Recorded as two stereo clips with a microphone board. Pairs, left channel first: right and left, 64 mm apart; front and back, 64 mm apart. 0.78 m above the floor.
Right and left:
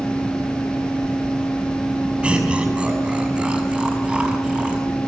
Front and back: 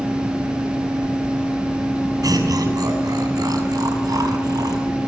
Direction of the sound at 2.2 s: 165° left.